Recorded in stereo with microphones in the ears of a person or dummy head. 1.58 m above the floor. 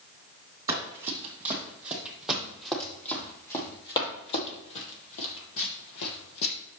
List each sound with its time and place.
0.7 s running footsteps: 15° right (ahead or behind), 3.5 m; by 6.5 s 60° left (ahead or behind), 3 m